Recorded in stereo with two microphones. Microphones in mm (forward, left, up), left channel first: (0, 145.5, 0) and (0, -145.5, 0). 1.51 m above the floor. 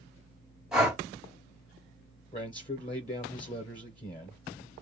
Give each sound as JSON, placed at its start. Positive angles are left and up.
{"t": 0.7, "sound": "breathing", "side_deg": 0, "distance_m": 1.5}
{"t": 2.3, "sound": "a man speaking", "side_deg": 25, "distance_m": 0.8}